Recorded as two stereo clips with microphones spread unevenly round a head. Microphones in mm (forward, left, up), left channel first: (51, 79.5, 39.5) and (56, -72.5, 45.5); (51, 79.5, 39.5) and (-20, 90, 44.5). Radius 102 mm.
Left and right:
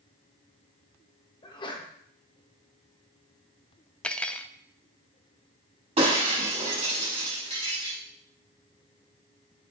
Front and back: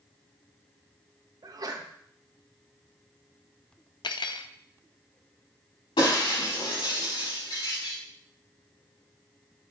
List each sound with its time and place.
1.4 s a sneeze: 150° left, 1.6 m
4.0 s cutlery clinking: 10° left, 0.6 m
6.0 s breaking glass: 40° right, 5.5 m